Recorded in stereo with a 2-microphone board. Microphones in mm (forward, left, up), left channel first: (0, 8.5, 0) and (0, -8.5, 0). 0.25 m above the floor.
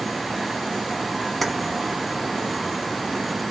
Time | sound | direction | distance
1.4 | keys jangling | 15° left (ahead or behind) | 1.2 m